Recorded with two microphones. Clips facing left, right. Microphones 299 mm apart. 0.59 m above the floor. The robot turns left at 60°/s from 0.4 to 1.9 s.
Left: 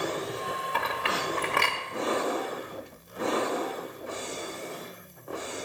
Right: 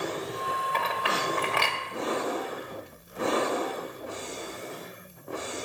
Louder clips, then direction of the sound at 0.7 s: Right 1 dB; 10° left (ahead or behind).